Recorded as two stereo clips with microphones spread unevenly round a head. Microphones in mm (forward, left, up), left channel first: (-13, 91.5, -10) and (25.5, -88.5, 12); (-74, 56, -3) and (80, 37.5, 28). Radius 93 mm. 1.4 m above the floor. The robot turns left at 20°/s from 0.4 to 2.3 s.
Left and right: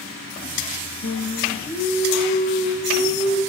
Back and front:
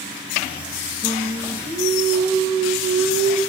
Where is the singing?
65° left, 4 m; by 3.4 s 40° left, 4 m.